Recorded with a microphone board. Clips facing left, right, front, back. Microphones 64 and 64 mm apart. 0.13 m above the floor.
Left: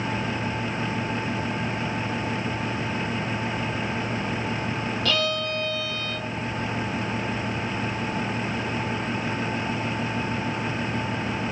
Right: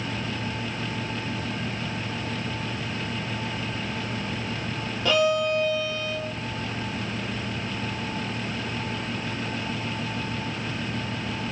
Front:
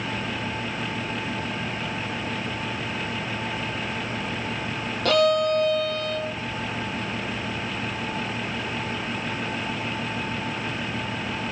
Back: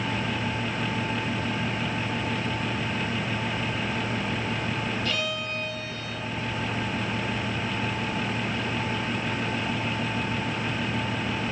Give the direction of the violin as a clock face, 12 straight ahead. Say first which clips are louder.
Right 7 dB, front 11 dB; 1 o'clock.